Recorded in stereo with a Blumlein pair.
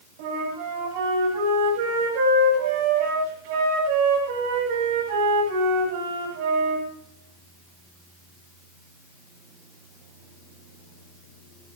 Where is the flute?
50° right, 8.5 m.